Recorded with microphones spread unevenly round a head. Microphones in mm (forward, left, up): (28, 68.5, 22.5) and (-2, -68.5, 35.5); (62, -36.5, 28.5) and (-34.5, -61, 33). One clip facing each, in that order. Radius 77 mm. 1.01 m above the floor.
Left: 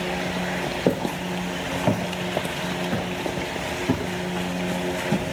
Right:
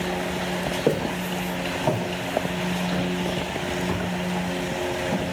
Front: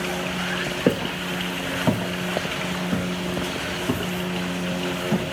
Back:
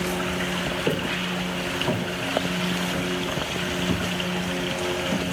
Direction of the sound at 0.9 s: 5° right.